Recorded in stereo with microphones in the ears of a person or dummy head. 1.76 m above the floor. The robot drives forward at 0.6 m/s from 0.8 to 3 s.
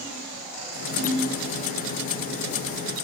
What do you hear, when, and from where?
1.0 s a ringtone: 80° right, 6 m